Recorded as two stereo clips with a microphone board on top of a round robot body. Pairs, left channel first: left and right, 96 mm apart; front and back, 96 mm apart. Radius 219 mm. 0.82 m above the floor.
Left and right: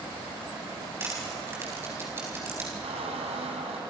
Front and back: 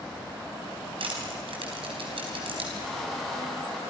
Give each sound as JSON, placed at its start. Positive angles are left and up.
{"t": 1.0, "sound": "crushing", "azimuth_deg": -155, "distance_m": 4.0}
{"t": 2.8, "sound": "a squeak", "azimuth_deg": -90, "distance_m": 2.5}